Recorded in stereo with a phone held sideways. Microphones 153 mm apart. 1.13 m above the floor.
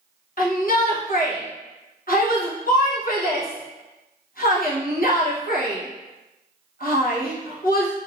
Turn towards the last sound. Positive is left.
turn(degrees=65)  # may be behind; listen again after turning